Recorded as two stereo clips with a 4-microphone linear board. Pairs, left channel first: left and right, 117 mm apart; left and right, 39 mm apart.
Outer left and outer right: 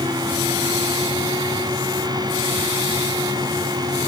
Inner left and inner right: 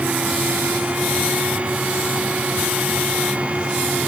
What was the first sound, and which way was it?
Only background noise.